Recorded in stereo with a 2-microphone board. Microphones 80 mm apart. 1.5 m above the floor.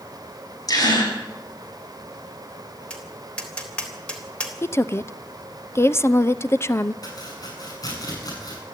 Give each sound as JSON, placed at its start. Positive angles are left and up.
{"t": 0.7, "sound": "a gasp", "side_deg": 50, "distance_m": 6.5}
{"t": 2.9, "sound": "tapping", "side_deg": 15, "distance_m": 3.5}
{"t": 4.6, "sound": "a woman speaking", "side_deg": 35, "distance_m": 0.7}
{"t": 7.0, "sound": "chopping", "side_deg": 50, "distance_m": 8.5}